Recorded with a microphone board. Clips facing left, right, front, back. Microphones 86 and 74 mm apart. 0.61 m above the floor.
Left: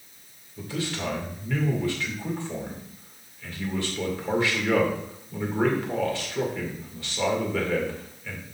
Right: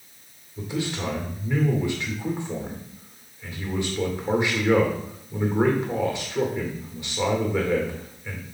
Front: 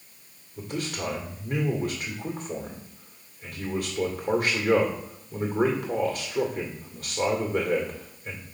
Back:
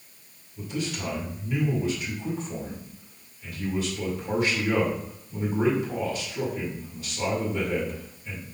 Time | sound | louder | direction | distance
0.6 | a man speaking | right 2 dB, even | 20° right | 2 m